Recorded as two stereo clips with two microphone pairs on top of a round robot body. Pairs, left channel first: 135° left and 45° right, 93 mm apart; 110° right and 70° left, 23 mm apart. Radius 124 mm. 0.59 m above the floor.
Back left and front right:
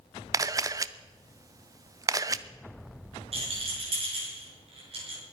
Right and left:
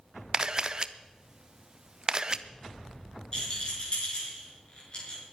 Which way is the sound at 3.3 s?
60° right.